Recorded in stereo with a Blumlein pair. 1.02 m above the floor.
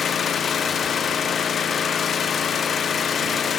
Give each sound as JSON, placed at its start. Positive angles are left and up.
{"t": 0.0, "sound": "an engine running", "azimuth_deg": 20, "distance_m": 0.9}